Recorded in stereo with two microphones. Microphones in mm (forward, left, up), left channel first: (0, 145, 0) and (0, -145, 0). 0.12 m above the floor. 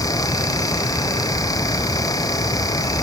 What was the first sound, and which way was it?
Only background noise.